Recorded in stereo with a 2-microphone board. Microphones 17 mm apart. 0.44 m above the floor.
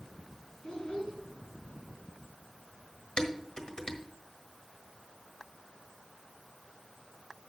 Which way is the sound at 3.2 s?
55° left (ahead or behind).